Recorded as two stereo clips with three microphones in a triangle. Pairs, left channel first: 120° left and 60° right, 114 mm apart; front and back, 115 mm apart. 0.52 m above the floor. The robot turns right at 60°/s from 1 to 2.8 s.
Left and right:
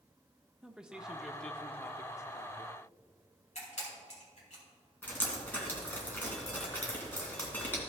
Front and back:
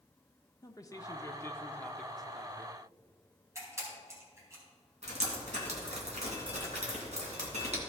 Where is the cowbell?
No cowbell in this recording.